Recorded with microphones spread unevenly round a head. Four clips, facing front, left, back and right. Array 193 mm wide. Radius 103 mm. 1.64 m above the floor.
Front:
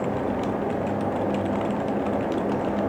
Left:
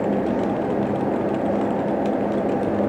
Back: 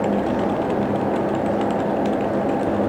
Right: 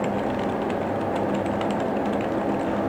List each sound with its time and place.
Only background noise.